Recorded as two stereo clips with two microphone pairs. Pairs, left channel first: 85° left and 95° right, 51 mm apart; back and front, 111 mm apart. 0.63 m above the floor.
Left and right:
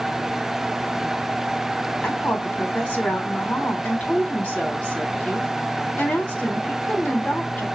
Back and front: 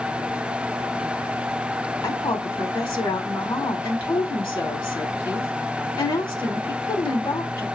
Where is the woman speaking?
140° left, 2 m.